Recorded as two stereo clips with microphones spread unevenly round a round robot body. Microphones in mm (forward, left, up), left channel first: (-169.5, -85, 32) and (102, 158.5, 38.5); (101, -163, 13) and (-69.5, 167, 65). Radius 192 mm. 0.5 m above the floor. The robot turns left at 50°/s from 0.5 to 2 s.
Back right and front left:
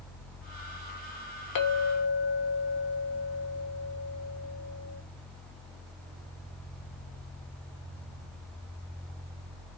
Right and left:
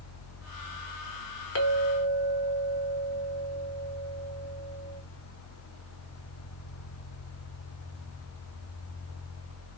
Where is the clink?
105° right, 1.3 m; by 5.0 s 125° right, 1.3 m.